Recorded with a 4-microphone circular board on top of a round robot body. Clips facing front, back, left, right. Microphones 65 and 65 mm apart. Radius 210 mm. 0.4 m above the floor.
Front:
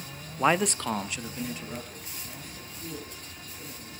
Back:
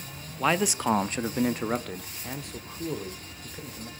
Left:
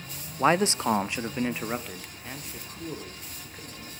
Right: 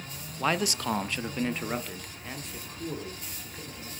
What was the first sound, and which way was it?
A man speaking, 55° left.